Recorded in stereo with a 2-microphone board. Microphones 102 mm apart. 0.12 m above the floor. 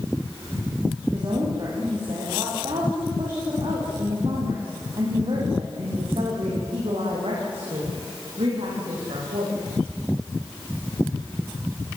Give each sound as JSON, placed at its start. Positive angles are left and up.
{"t": 1.1, "sound": "a woman speaking", "side_deg": -45, "distance_m": 7.5}